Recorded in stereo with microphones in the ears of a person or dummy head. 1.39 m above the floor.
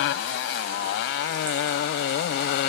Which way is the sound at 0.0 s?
75° left (ahead or behind).